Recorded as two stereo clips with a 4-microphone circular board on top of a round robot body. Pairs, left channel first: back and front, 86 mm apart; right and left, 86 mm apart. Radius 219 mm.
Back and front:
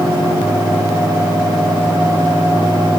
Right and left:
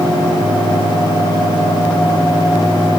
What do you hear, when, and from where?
Only background noise.